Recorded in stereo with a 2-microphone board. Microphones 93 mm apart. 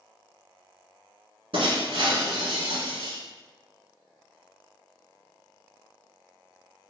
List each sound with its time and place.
1.5 s breaking glass: 75° right (ahead or behind), 1.4 m